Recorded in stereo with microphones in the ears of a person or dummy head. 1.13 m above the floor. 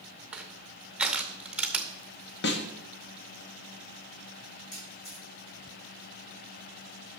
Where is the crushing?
5° right (ahead or behind), 0.8 m.